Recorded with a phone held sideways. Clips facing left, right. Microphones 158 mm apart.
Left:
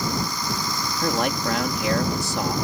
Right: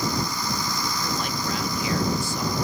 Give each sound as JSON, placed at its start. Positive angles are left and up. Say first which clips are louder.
{"t": 1.0, "sound": "a man speaking", "louder": "left 10 dB", "side_deg": 75}